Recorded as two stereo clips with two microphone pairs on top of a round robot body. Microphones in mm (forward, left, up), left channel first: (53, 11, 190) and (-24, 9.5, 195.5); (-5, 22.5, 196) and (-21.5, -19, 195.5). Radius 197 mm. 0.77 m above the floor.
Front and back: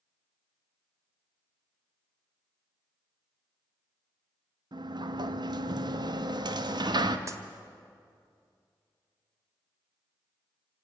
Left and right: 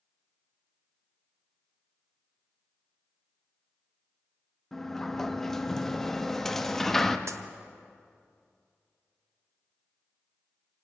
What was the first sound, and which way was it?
A sliding door, 150° left.